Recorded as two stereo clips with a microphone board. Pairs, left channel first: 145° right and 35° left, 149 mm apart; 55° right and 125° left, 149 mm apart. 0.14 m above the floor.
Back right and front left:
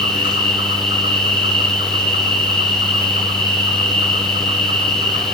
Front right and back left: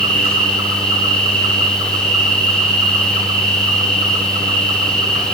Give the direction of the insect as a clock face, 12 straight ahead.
9 o'clock.